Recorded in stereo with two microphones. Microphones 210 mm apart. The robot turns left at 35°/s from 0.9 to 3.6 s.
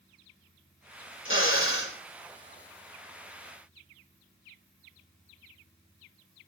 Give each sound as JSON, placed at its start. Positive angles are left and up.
{"t": 1.2, "sound": "a drill", "side_deg": 75, "distance_m": 4.0}